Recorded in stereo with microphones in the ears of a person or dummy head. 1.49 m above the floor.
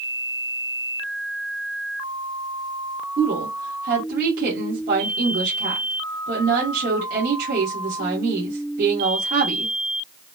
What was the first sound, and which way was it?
A woman speaking, 50° right (ahead or behind).